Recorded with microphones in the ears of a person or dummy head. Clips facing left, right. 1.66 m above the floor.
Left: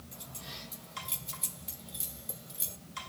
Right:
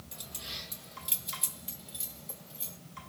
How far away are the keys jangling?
About 1.3 m.